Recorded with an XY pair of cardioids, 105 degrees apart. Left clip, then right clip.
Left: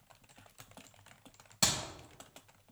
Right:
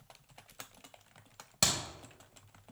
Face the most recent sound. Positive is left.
turn(degrees=-30)